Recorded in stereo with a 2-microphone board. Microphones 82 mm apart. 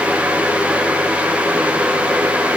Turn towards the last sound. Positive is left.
No sound to turn to.